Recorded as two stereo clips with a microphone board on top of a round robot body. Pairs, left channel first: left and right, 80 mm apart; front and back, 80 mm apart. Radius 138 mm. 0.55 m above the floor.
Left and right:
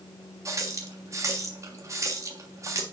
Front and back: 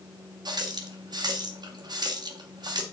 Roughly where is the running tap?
Behind right.